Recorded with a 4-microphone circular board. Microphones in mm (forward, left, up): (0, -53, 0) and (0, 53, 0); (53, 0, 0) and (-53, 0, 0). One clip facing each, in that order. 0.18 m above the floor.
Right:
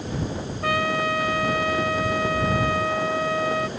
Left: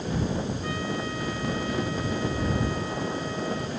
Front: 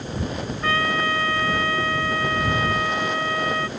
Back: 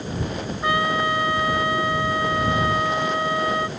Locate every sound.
0.6 s a trumpet: 105° right